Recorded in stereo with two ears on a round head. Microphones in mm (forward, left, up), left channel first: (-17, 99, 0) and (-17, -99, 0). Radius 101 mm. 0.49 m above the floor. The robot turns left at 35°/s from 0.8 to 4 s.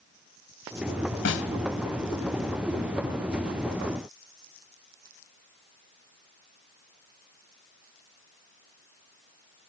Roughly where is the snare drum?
Left.